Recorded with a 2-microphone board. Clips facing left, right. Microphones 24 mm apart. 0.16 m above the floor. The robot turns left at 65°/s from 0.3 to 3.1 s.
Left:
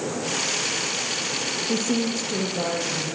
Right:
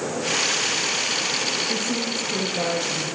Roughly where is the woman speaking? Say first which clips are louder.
Left 1 dB; ahead left.